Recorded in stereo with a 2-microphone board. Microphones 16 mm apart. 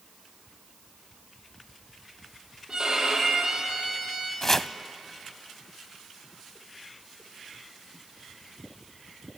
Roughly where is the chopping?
Left.